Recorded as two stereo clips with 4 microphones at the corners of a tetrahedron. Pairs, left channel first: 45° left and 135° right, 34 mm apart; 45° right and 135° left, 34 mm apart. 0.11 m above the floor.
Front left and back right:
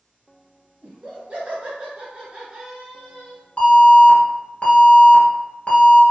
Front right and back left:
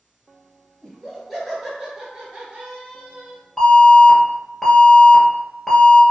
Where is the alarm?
35° left, 1.2 m.